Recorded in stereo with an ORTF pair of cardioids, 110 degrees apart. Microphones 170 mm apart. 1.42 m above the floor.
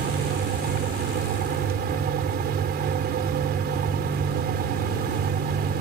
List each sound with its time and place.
0.0 s a fan: 65° right